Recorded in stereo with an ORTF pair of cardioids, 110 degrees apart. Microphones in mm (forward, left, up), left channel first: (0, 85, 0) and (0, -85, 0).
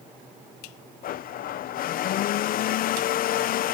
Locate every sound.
1.0 s a blender: 60° left